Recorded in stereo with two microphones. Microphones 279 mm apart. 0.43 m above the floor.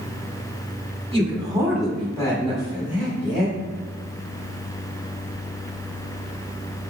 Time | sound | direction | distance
1.1 | a man speaking | 20° right (ahead or behind) | 1.3 m